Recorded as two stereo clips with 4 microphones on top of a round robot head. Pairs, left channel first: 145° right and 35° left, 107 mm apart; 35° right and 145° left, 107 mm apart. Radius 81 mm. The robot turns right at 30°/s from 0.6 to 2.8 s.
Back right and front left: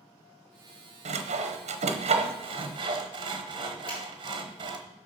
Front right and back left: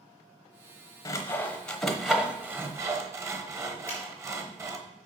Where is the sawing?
30° left, 1.0 m; by 4.8 s 80° left, 1.0 m.